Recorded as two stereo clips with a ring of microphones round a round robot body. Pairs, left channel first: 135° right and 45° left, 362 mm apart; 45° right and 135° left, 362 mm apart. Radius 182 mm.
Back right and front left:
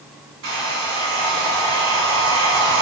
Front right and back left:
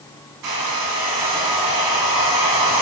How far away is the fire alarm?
I don't hear a fire alarm.